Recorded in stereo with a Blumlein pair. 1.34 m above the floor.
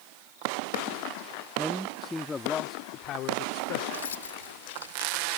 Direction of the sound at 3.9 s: 65° left.